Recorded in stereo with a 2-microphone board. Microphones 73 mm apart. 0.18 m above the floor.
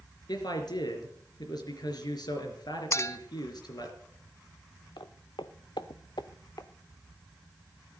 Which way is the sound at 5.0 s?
75° left (ahead or behind).